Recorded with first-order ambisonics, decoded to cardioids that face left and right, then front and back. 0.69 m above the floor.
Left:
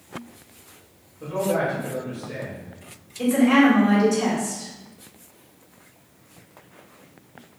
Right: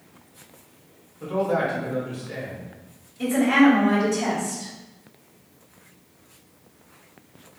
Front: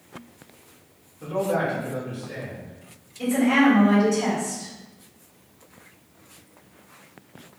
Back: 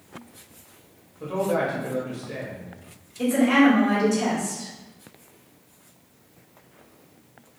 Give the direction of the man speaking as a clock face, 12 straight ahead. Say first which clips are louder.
Even, even; 6 o'clock.